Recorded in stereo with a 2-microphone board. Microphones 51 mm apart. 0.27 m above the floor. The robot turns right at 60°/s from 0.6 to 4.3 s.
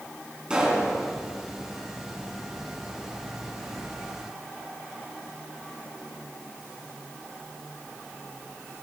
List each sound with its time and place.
0.5 s a pop: 20° right (ahead or behind), 3 m; by 0.9 s 5° right (ahead or behind), 3 m